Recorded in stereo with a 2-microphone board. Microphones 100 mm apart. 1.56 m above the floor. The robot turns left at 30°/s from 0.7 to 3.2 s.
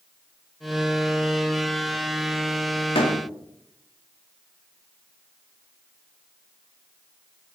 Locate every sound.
3.0 s a door slam: 70° left (ahead or behind), 2 m